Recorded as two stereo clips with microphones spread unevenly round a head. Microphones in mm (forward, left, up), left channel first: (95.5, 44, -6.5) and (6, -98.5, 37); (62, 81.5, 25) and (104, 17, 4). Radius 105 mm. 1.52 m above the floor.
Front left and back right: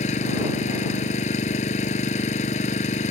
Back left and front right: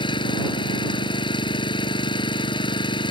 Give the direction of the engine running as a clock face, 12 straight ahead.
8 o'clock.